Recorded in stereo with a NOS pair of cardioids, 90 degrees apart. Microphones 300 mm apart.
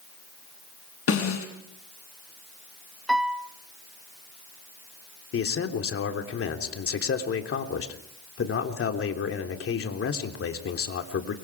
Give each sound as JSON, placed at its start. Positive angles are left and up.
{"t": 1.1, "sound": "a snare drum", "azimuth_deg": 50, "distance_m": 6.5}
{"t": 3.1, "sound": "a piano", "azimuth_deg": 0, "distance_m": 1.2}
{"t": 5.3, "sound": "a man speaking", "azimuth_deg": 50, "distance_m": 3.5}